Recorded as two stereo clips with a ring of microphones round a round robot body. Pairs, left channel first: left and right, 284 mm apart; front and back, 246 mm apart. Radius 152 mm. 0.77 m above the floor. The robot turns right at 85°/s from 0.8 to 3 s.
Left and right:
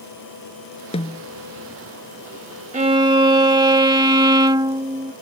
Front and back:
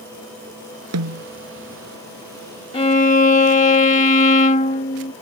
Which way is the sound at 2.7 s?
50° right.